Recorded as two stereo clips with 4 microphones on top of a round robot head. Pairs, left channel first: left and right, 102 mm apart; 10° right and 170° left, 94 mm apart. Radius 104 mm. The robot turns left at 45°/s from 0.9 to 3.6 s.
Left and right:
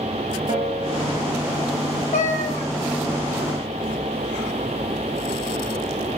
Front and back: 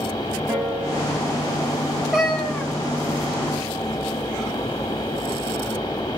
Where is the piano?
115° right, 6 m; by 1.8 s 155° right, 6 m.